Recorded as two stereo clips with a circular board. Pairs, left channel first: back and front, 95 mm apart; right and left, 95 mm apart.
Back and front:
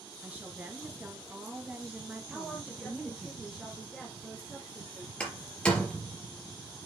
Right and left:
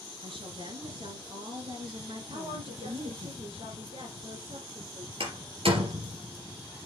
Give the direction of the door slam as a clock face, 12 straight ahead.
9 o'clock.